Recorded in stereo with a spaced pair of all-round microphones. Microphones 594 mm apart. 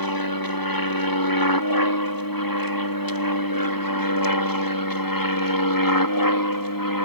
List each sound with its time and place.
0.0 s an aircraft: 35° left (ahead or behind)